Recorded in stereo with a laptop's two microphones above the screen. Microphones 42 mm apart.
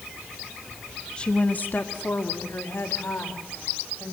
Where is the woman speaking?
20° left (ahead or behind), 1.2 m; by 4.1 s 80° left, 4.5 m.